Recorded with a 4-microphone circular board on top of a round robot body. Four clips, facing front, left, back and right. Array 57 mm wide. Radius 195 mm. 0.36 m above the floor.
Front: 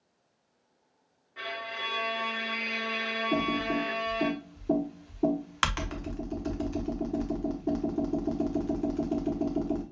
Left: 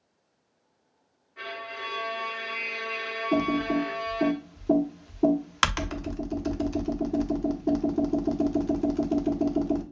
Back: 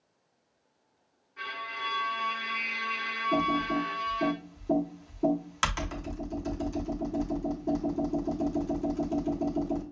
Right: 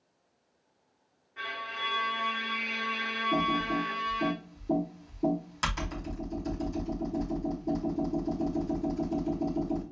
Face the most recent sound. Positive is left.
turn(degrees=75)